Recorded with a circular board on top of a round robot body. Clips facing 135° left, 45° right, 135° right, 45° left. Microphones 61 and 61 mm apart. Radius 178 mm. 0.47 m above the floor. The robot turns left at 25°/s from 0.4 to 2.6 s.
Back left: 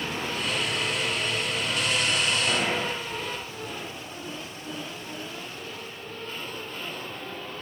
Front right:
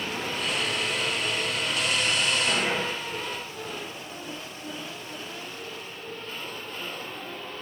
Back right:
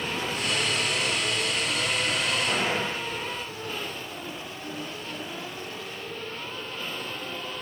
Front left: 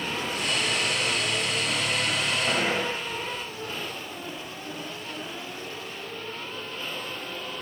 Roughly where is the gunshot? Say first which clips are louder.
Even, front left 1 dB; ahead.